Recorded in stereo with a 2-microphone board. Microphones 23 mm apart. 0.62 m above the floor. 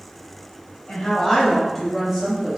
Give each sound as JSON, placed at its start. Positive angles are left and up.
{"t": 0.9, "sound": "a woman speaking", "side_deg": 40, "distance_m": 1.0}